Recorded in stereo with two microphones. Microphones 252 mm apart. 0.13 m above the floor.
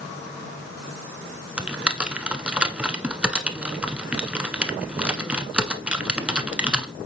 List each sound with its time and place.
1.6 s typing on a keyboard: 5° right (ahead or behind), 0.7 m